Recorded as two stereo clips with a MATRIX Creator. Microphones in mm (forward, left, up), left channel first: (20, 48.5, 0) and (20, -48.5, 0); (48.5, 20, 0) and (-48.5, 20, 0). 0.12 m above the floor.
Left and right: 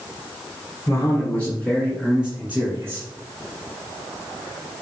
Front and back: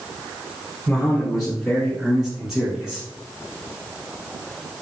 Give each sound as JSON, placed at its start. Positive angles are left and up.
{"t": 0.9, "sound": "a man speaking", "azimuth_deg": 75, "distance_m": 1.8}